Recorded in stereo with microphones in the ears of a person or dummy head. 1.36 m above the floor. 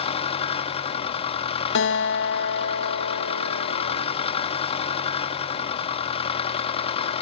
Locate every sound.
0.0 s an engine running: 35° left (ahead or behind), 1.6 m
1.8 s a guitar: 65° left (ahead or behind), 2.0 m